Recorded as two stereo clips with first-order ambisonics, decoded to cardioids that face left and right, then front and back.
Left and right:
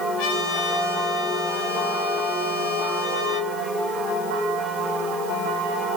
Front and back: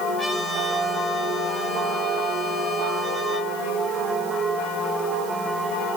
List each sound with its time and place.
0.2 s a trumpet: 100° left, 10 m